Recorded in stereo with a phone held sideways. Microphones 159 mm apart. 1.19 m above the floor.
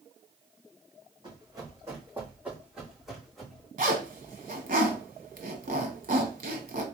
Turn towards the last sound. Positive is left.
turn(degrees=-60)  # may be behind; listen again after turning